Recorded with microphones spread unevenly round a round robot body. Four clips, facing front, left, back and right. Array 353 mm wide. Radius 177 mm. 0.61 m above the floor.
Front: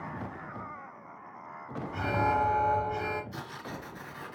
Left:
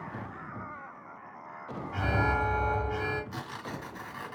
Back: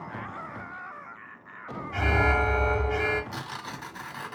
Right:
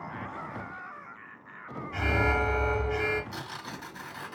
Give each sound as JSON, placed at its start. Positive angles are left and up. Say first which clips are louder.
{"t": 1.9, "sound": "an alarm", "louder": "right 1 dB, back 3 dB", "azimuth_deg": -170, "distance_m": 3.5}
{"t": 3.3, "sound": "tearing paper", "louder": "left 1 dB, back 3 dB", "azimuth_deg": 175, "distance_m": 2.5}